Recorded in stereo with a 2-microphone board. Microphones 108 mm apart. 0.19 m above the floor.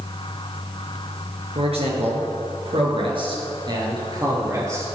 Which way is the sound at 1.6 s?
65° right (ahead or behind).